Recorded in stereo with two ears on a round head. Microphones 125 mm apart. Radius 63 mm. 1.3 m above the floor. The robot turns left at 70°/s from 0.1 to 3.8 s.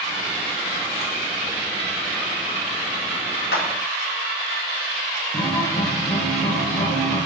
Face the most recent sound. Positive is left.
turn(degrees=25)  # may be behind; listen again after turning